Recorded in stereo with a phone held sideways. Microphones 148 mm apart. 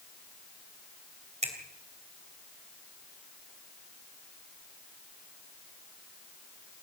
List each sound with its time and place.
1.4 s a finger snap: 50° right (ahead or behind), 3 m